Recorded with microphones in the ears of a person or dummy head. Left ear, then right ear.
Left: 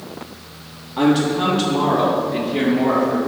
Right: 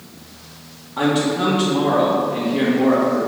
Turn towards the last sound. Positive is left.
turn(degrees=30)  # may be behind; listen again after turning